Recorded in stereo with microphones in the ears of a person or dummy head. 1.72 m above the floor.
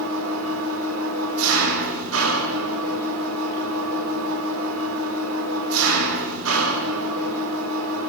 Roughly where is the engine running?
Right.